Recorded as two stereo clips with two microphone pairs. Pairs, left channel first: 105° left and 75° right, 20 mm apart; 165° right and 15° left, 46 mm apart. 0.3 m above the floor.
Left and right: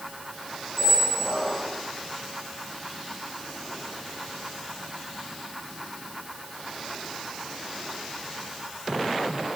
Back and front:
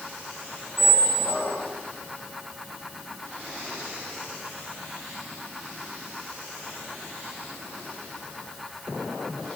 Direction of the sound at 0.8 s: Straight ahead.